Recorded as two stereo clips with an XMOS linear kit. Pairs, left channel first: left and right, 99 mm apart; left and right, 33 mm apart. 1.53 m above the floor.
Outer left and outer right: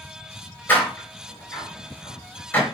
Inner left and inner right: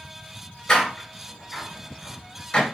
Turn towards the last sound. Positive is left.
turn(degrees=20)  # may be behind; listen again after turning